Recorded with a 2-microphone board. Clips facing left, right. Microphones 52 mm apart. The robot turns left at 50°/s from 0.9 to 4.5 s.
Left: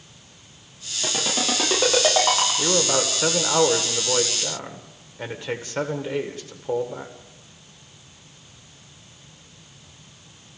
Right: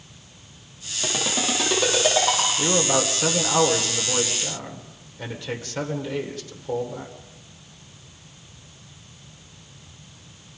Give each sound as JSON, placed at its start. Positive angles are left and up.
{"t": 1.0, "sound": "a ringtone", "side_deg": -10, "distance_m": 8.5}
{"t": 2.6, "sound": "a man speaking", "side_deg": 10, "distance_m": 1.5}